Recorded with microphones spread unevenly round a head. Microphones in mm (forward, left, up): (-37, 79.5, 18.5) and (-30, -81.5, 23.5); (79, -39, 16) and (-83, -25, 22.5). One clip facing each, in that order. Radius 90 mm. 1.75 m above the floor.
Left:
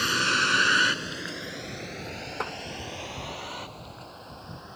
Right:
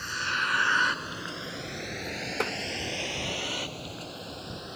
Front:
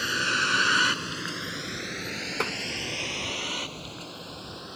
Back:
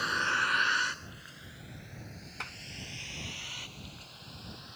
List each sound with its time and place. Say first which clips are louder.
0.0 s a vehicle: left 7 dB, front 4 dB; 65° left; by 4.8 s 30° right
2.4 s tapping: right 4 dB, front 19 dB; 20° right